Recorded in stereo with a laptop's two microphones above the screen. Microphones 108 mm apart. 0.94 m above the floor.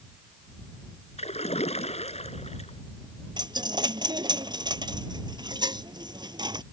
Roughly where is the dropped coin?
Right.